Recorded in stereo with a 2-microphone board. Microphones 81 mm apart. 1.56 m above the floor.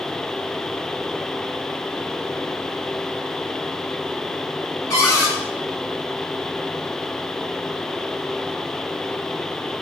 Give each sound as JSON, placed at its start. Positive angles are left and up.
{"t": 4.9, "sound": "a cupboard door", "side_deg": 40, "distance_m": 2.0}